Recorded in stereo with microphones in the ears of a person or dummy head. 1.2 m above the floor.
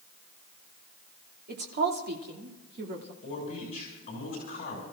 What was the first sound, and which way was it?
A woman speaking, 50° right (ahead or behind).